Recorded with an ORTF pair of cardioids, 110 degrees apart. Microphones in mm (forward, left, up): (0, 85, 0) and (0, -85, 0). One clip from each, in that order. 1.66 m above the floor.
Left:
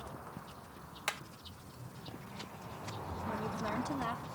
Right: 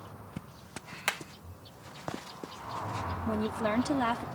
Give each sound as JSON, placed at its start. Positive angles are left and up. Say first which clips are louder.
{"t": 1.1, "sound": "hammering", "louder": "right 6 dB", "azimuth_deg": -30}
{"t": 3.3, "sound": "a woman speaking", "louder": "right 6 dB", "azimuth_deg": -55}